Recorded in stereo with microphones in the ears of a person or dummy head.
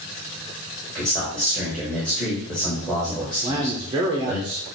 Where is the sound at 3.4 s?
20° right (ahead or behind), 0.6 m.